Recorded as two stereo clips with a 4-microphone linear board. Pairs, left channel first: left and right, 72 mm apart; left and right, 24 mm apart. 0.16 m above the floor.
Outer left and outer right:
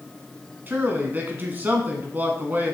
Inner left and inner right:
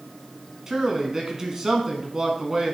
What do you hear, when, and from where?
0.7 s a man speaking: 25° right (ahead or behind), 1.3 m